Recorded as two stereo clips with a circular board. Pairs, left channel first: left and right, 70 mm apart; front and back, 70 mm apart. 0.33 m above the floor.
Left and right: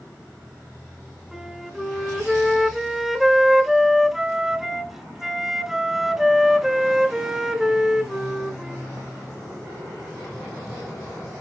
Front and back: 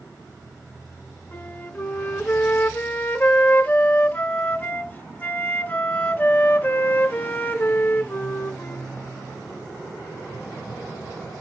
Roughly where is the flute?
Ahead.